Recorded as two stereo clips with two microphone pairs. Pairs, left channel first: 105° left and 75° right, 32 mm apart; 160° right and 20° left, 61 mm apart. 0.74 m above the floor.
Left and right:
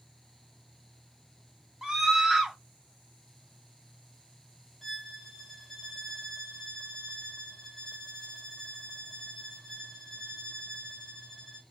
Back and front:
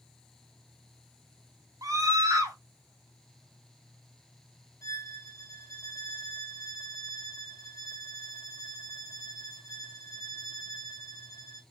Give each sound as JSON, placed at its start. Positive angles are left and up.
{"t": 1.8, "sound": "a scream", "azimuth_deg": 0, "distance_m": 1.3}
{"t": 4.8, "sound": "a violin", "azimuth_deg": -175, "distance_m": 0.9}